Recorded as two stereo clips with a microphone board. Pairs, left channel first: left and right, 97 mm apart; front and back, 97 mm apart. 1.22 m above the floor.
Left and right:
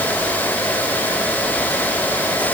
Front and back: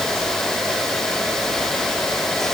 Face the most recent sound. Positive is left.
No sound to turn to.